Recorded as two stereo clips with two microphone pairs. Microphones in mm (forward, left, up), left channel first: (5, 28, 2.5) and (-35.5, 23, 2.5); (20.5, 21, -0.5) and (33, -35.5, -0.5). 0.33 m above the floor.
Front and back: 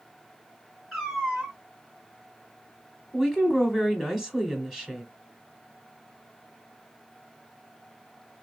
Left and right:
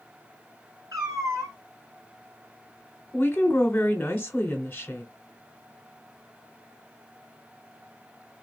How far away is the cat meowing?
About 1.8 m.